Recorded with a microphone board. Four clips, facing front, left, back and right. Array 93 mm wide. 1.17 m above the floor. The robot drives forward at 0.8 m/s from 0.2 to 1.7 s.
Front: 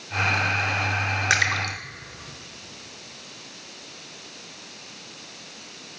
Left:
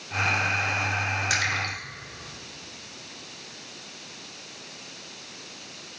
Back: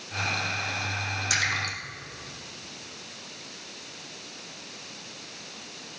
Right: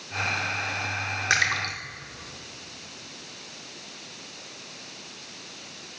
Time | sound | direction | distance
1.3 | a splash | 30° right | 1.4 m